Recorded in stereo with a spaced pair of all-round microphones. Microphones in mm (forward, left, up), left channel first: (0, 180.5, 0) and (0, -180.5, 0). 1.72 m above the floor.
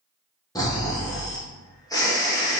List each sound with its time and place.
0.6 s snoring: 10° left (ahead or behind), 0.7 m